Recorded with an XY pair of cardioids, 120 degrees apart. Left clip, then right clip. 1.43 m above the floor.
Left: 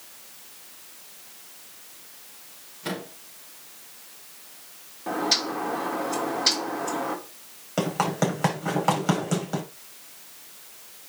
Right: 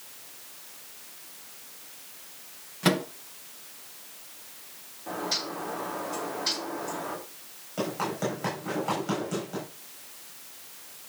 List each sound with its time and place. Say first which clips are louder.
2.8 s a microwave: right 7 dB; 65° right, 2.5 m
5.1 s a bird: left 6 dB; 55° left, 3 m
7.8 s running footsteps: left 5 dB; 60° left, 5.5 m